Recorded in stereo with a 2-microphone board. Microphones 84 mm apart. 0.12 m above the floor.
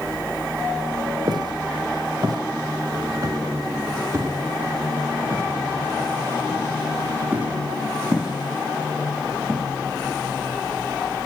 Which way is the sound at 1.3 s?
55° right (ahead or behind).